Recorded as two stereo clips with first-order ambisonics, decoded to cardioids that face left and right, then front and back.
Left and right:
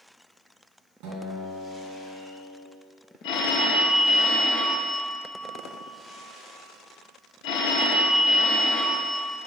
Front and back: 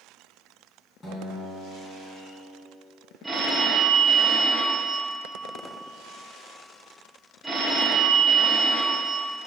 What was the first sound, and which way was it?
A guitar, 70° right.